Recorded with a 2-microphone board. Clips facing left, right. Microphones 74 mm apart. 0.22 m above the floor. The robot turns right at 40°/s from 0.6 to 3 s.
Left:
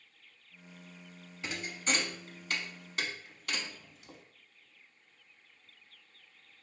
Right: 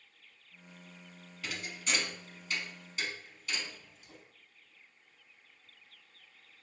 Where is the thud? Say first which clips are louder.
Left 3 dB; 25° left (ahead or behind), 0.5 m; by 4.2 s 65° left (ahead or behind), 0.5 m.